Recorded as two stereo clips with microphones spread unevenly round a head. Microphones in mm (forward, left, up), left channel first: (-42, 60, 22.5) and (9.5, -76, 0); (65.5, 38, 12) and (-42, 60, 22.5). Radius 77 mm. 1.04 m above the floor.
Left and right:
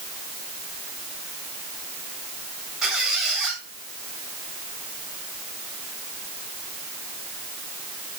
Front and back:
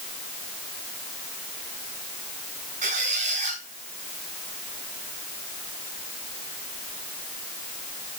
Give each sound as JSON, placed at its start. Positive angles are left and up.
{"t": 2.8, "sound": "a squeak", "azimuth_deg": -155, "distance_m": 4.5}